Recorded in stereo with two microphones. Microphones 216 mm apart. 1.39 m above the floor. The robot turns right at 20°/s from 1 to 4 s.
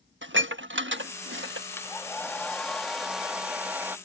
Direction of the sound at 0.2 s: 65° right (ahead or behind).